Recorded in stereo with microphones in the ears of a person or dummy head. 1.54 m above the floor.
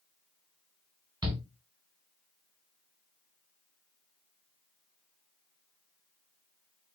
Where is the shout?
25° right (ahead or behind), 1.4 m.